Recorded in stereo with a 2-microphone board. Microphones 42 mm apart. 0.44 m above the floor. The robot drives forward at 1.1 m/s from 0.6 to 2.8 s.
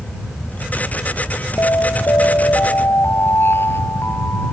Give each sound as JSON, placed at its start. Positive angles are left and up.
{"t": 1.6, "sound": "an alarm", "side_deg": 80}